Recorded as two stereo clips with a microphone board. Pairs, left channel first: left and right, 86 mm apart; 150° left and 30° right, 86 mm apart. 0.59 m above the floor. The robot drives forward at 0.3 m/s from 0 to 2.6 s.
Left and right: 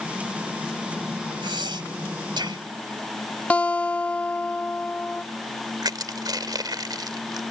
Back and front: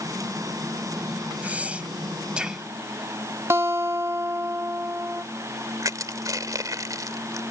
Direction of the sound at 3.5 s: 20° left.